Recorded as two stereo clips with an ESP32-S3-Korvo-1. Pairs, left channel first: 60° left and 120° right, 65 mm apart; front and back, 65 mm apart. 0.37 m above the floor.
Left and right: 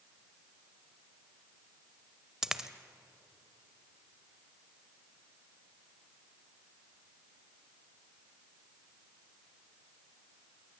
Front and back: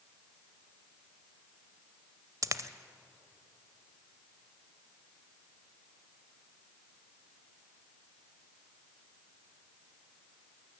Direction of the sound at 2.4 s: 160° left.